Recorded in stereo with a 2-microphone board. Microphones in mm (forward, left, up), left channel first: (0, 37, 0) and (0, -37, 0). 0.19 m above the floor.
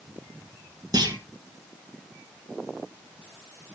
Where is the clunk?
65° right (ahead or behind), 4 m.